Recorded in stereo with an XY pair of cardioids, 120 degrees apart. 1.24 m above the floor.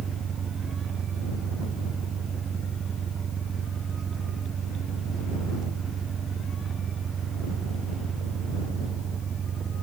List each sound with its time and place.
0.0 s an engine running: 40° right